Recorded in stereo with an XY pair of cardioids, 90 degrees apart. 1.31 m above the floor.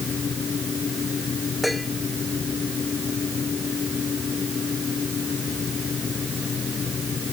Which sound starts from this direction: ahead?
Dishes clattering, at 1.6 s.